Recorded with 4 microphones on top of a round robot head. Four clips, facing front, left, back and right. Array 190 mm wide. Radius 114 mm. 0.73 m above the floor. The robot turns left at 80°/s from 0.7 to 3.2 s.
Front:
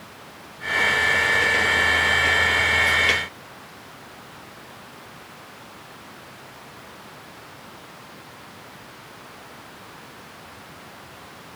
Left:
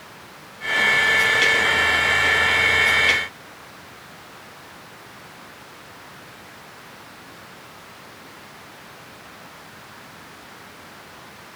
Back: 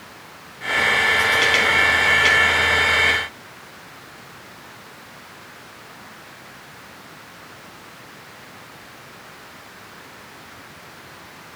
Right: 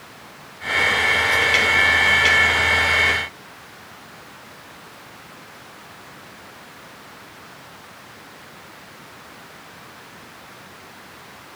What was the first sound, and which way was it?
Only background noise.